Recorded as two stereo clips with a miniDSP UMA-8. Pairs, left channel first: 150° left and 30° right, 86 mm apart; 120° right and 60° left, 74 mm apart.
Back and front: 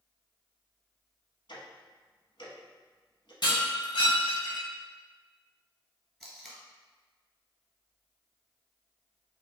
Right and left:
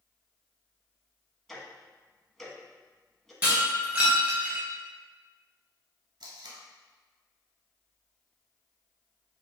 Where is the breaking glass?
125° left, 1.9 m.